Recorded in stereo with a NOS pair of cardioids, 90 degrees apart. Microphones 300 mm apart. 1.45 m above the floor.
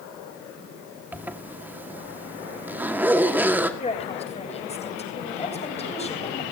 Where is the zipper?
5° right, 2 m.